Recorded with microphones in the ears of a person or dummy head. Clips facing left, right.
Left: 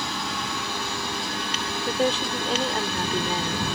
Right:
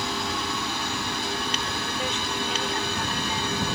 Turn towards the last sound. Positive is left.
turn(degrees=35)  # may be behind; listen again after turning